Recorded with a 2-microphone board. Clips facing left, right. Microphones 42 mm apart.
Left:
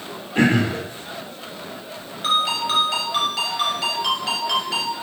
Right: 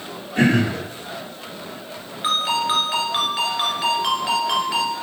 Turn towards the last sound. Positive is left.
turn(degrees=-15)  # may be behind; listen again after turning